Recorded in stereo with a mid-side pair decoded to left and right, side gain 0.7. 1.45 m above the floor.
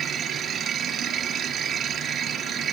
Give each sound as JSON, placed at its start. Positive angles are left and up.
{"t": 0.0, "sound": "a machine running", "azimuth_deg": -35}